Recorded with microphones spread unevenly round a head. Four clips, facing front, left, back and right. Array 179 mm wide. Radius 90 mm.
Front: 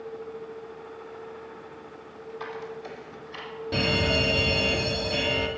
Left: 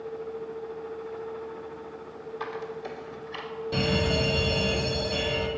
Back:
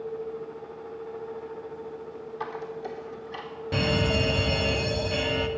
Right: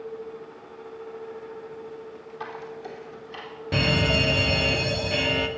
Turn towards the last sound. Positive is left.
turn(degrees=-85)